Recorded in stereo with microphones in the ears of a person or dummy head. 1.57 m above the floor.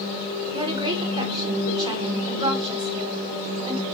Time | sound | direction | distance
0.5 | a woman speaking | 20° right (ahead or behind) | 1.3 m